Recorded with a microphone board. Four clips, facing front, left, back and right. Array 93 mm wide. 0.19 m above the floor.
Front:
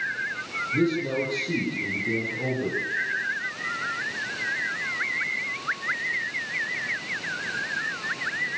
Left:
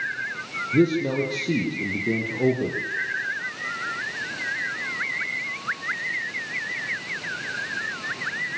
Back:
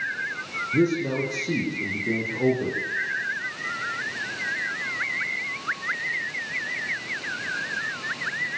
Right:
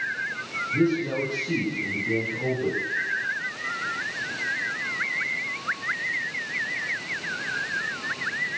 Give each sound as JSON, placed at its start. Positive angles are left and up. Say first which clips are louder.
{"t": 0.7, "sound": "a man speaking", "louder": "left 3 dB, back 2 dB", "azimuth_deg": 105, "distance_m": 5.0}